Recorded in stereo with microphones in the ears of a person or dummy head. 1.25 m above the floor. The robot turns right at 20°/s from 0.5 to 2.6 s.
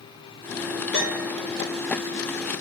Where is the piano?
5° left (ahead or behind), 1.8 m; by 1.3 s 10° left (ahead or behind), 1.8 m.